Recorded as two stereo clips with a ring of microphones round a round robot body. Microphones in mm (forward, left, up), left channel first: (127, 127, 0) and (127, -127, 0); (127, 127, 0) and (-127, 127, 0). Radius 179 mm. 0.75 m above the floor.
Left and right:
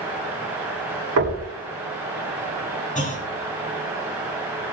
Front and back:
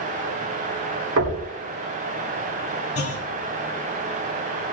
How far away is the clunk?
About 3.5 m.